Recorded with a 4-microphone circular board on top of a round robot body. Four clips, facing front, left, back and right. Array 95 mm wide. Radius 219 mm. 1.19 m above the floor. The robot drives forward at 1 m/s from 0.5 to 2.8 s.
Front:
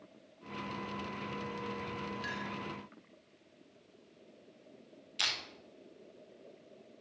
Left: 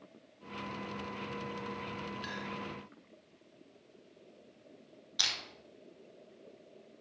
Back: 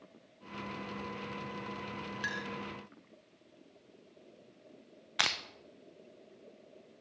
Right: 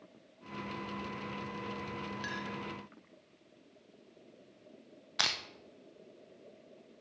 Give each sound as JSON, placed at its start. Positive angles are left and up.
{"t": 2.2, "sound": "a clink", "azimuth_deg": -175, "distance_m": 0.8}
{"t": 5.2, "sound": "crushing", "azimuth_deg": -150, "distance_m": 1.0}